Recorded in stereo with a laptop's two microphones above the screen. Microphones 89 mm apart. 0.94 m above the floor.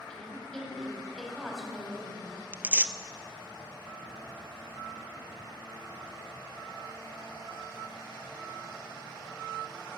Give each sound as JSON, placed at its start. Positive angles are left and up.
{"t": 0.1, "sound": "a woman speaking", "side_deg": 10, "distance_m": 5.5}
{"t": 2.5, "sound": "tearing paper", "side_deg": -20, "distance_m": 0.5}